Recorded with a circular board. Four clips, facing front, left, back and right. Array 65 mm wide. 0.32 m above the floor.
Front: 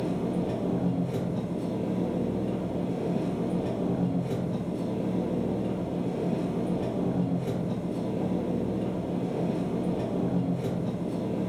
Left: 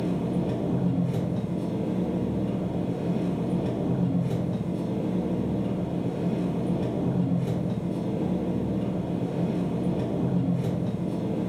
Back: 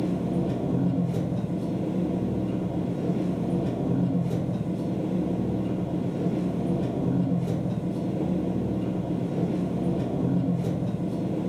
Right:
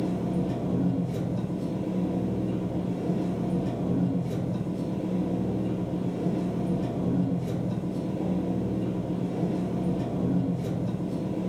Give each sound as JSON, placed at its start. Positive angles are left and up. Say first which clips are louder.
{"t": 0.0, "sound": "an engine running", "louder": "left 1 dB, back 2 dB", "azimuth_deg": 65, "distance_m": 1.9}